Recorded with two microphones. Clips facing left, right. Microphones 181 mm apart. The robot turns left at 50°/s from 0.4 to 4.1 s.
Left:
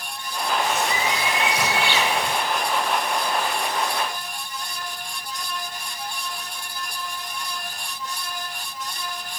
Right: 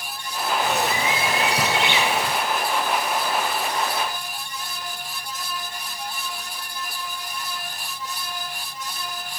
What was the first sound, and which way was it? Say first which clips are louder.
A bird: right 2 dB; 95° right.